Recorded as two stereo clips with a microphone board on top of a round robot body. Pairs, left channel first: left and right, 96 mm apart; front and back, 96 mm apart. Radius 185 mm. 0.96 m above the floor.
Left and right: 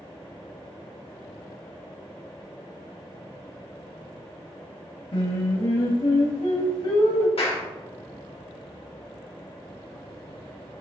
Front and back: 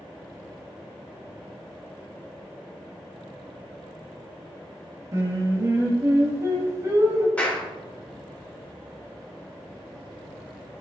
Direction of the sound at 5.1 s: 125° left.